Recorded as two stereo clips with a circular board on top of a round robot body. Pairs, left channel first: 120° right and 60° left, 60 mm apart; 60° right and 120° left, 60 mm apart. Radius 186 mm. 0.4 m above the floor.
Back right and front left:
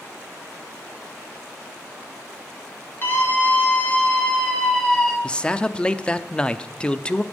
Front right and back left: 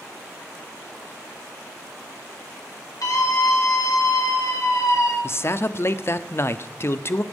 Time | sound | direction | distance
3.0 | a scream | 70° right | 4 m
5.2 | a man speaking | 55° right | 0.9 m